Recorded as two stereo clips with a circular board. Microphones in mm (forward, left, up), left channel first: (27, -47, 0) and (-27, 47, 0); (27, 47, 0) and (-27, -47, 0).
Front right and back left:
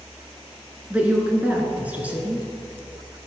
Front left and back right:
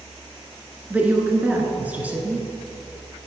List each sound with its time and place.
0.9 s a woman speaking: straight behind, 1.4 m